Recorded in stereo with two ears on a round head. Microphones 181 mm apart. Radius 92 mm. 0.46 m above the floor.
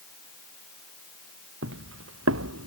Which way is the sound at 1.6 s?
65° right (ahead or behind).